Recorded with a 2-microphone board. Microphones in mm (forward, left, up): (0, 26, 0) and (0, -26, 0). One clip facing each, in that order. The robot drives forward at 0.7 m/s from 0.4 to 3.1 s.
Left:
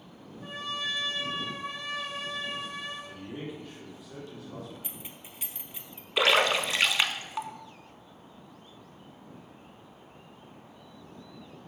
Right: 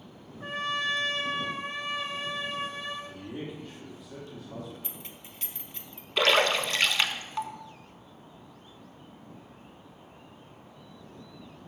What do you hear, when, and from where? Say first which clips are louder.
0.4 s a trumpet: right 5 dB; 50° right (ahead or behind), 0.8 m; by 3.0 s 20° right (ahead or behind), 1.8 m
3.0 s a man speaking: right 1 dB; 5° left (ahead or behind), 2 m
4.8 s keys jangling: even; 10° left (ahead or behind), 0.7 m
6.2 s a splash: even; 10° left (ahead or behind), 0.5 m